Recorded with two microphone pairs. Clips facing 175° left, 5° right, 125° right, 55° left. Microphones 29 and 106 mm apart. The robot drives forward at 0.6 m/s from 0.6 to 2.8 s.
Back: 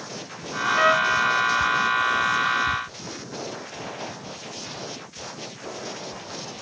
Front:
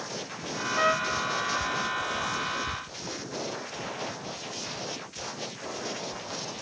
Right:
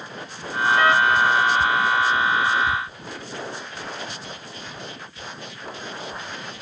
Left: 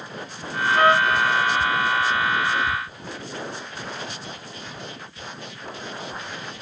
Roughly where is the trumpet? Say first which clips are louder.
Back 7 dB, left 1 dB; left.